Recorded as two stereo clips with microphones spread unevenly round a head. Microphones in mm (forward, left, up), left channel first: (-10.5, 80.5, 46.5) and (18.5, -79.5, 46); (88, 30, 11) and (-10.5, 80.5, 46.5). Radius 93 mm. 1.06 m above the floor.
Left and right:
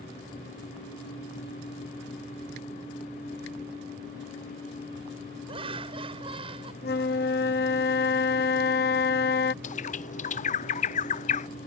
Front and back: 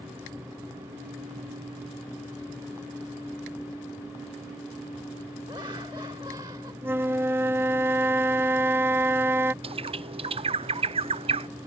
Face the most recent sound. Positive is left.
turn(degrees=115)